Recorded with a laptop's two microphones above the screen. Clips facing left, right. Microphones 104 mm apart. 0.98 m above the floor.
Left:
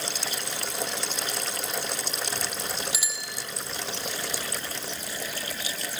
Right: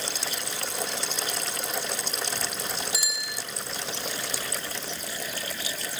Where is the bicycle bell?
5° left (ahead or behind), 5.5 m.